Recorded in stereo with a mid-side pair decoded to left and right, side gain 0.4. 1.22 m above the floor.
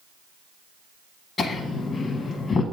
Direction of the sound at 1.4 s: 50° left.